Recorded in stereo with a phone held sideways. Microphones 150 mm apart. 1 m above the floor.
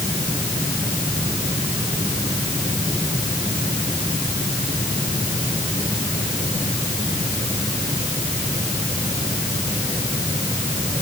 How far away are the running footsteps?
No running footsteps in this recording.